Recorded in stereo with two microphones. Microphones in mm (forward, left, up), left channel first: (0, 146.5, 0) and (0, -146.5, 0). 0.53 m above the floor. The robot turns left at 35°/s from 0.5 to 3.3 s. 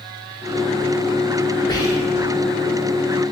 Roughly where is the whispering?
Centre.